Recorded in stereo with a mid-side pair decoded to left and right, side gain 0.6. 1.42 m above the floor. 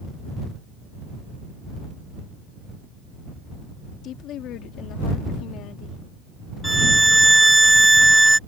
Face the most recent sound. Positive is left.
turn(degrees=-10)